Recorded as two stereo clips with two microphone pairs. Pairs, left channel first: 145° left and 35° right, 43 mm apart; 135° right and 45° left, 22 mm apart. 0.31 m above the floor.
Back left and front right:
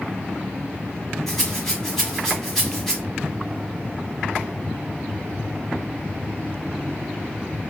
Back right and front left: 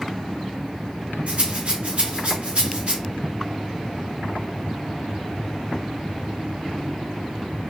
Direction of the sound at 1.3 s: 60° left.